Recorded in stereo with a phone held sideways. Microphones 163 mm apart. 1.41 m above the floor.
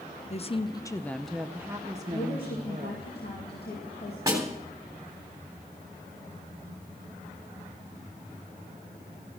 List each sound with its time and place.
0.3 s a woman speaking: 45° left (ahead or behind), 0.7 m; by 3.1 s 40° right (ahead or behind), 1.3 m
2.1 s a woman speaking: 80° left, 2.5 m
4.3 s a snare drum: 20° right (ahead or behind), 3 m